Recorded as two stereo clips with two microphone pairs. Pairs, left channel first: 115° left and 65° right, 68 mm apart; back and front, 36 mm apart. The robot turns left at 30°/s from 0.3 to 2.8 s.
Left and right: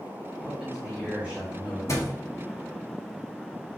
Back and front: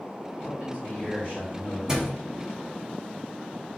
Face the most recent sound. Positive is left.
turn(degrees=40)